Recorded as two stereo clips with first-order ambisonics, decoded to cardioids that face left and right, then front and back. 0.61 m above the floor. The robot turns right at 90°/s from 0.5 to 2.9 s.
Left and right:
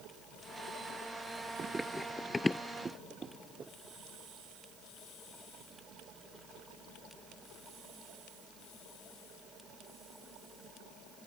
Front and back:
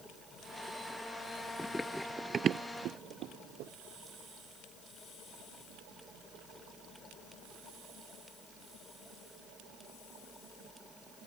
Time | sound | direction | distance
1.6 | running footsteps | 80° right | ?